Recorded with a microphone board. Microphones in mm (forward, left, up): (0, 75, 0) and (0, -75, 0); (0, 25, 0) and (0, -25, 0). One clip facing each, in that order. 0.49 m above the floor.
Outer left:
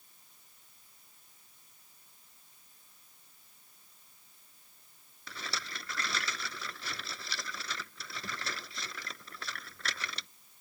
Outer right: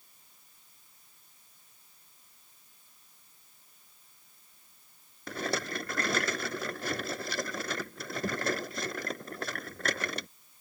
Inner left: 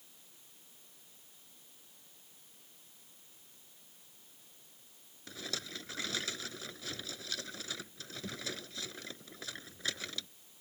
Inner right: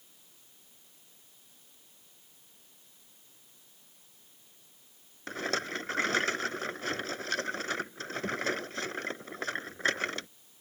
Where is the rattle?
50° right (ahead or behind).